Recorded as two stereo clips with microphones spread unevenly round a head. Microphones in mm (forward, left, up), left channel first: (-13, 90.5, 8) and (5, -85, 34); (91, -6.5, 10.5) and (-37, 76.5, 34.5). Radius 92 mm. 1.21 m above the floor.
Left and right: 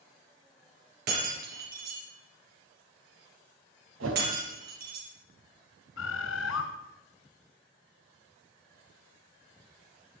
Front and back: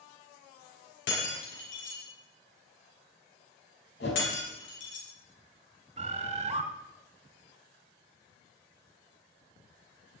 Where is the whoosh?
70° right, 4 m.